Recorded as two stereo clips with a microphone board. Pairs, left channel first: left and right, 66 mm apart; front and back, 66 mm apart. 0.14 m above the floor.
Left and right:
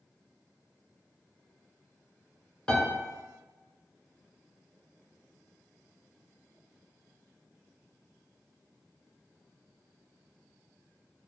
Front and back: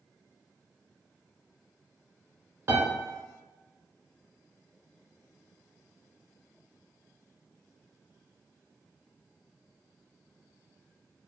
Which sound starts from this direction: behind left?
A piano, at 2.7 s.